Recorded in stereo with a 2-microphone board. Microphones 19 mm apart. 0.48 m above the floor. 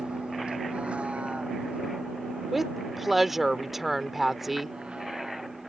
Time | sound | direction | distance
0.0 | a vehicle | 70° right (ahead or behind) | ?
2.5 | a woman speaking | 15° right (ahead or behind) | ?